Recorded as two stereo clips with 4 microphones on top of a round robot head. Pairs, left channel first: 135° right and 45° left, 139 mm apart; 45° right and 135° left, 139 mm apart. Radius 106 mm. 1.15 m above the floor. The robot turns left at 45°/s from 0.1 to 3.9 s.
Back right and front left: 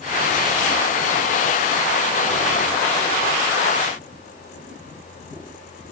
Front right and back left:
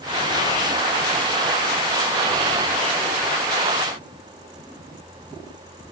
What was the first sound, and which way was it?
Only background noise.